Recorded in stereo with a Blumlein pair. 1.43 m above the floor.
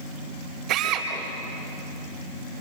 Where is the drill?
35° right, 5 m.